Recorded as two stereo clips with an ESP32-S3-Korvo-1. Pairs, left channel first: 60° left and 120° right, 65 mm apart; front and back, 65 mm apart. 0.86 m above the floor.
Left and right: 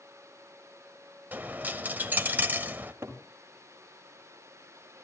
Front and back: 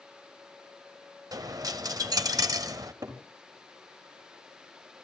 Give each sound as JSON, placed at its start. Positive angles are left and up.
{"t": 1.3, "sound": "a dropped coin", "azimuth_deg": 180, "distance_m": 1.4}
{"t": 2.8, "sound": "a cupboard door", "azimuth_deg": -175, "distance_m": 5.5}